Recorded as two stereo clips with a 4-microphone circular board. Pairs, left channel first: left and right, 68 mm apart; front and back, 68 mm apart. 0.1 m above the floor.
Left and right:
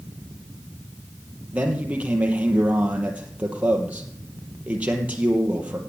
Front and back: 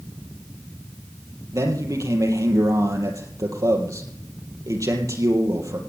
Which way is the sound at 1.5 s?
155° right.